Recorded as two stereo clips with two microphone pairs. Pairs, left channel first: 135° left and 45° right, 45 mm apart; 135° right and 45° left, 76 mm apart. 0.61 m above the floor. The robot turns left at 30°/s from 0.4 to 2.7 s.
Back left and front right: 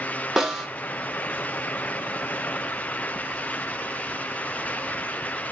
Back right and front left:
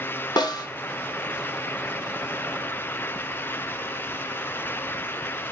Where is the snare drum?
125° right, 1.6 m; by 0.7 s 135° right, 1.6 m.